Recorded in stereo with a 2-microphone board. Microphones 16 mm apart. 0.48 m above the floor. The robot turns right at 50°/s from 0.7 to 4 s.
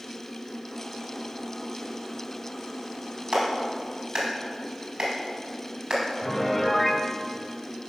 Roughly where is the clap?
Right.